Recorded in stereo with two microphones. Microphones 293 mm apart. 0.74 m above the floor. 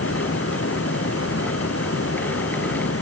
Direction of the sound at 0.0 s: 50° left (ahead or behind).